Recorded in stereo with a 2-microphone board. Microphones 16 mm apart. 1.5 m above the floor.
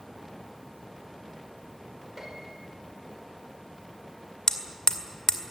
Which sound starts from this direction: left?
Hammering, at 4.5 s.